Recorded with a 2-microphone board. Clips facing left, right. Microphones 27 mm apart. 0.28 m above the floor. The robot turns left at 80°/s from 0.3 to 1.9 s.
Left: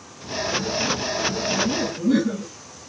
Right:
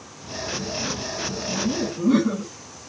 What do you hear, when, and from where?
1.5 s laughter: 70° right, 1.9 m; by 2.5 s 105° right, 1.9 m